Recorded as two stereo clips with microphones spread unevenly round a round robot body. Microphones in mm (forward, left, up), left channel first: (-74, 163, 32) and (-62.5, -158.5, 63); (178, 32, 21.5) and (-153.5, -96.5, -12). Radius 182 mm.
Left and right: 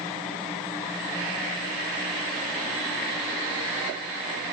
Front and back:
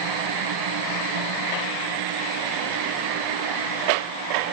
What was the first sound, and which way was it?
Only background noise.